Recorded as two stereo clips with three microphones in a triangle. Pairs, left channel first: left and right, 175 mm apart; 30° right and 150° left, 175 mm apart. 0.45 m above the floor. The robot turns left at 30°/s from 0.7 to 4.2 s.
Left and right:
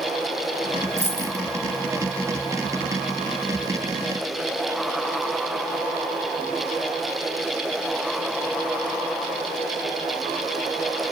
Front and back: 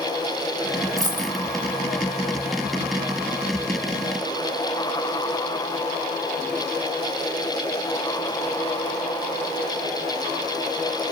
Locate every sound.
1.0 s a dropped coin: 140° right, 1.9 m; by 1.4 s 155° right, 1.9 m